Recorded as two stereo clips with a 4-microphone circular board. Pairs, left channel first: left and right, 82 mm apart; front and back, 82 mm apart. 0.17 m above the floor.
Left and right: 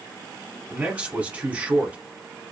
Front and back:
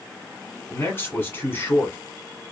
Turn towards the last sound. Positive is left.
turn(degrees=-35)